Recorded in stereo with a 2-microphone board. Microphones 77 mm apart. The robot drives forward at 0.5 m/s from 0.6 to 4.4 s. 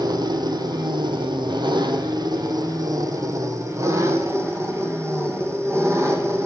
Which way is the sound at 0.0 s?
60° right (ahead or behind).